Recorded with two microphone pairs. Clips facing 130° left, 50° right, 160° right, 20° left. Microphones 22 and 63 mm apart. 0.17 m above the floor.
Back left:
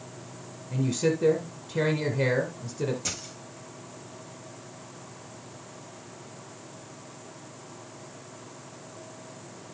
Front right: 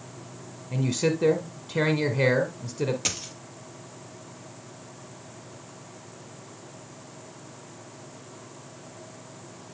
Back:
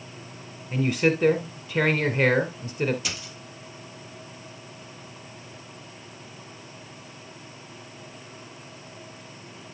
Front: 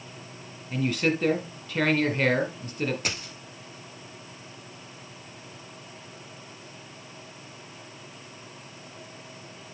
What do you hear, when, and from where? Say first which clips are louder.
0.7 s a man speaking: front right 1 dB, back 3 dB; 85° right, 1.2 m
3.0 s a dropped coin: front right 4 dB, front 2 dB; 25° right, 1.8 m